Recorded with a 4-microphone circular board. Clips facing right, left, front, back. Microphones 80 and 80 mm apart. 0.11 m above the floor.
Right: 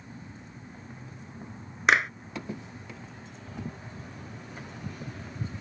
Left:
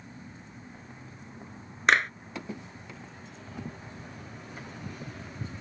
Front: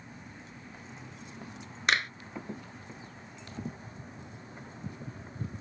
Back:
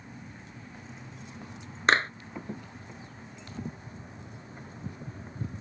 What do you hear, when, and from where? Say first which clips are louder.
1.9 s a clap: even, back 5 dB; 175° right